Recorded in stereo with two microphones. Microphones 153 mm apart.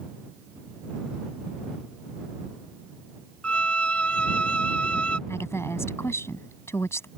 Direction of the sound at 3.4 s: 10° left (ahead or behind).